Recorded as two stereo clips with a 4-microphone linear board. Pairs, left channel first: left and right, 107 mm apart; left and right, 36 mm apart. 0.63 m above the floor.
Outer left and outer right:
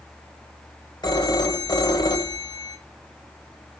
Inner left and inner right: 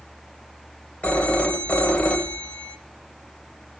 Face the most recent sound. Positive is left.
turn(degrees=45)  # may be behind; listen again after turning